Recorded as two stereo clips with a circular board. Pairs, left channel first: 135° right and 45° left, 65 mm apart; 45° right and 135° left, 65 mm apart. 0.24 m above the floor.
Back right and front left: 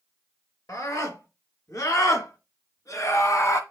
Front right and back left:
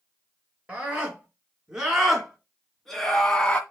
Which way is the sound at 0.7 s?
155° right.